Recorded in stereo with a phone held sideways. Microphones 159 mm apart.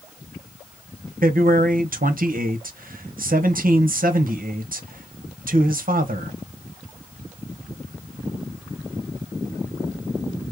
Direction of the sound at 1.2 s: 60° right (ahead or behind).